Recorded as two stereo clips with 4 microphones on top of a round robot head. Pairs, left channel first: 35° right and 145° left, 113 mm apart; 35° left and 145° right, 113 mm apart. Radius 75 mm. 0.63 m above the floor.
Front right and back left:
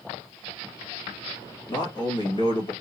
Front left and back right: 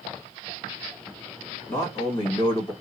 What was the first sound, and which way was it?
A man speaking, 20° right.